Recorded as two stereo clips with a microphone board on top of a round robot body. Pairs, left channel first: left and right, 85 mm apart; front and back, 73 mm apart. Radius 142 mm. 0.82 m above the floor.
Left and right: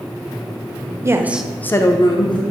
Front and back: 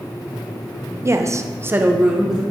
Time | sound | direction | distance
1.0 | a woman speaking | 135° right | 0.6 m